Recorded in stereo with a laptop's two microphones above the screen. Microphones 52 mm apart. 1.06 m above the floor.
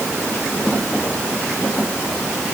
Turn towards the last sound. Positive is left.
No sound to turn to.